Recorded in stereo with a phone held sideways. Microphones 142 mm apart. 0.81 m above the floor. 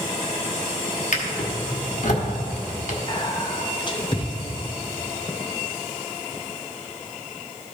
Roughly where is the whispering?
Left.